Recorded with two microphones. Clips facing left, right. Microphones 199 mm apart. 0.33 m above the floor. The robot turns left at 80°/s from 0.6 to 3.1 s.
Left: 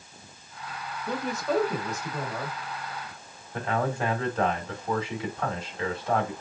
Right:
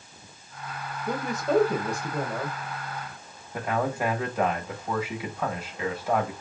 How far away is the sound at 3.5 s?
About 1.8 m.